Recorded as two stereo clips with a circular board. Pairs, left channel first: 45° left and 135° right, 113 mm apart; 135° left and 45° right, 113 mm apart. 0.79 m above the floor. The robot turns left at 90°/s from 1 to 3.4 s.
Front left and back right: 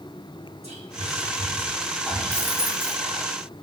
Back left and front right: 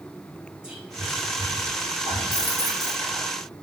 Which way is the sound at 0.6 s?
125° right.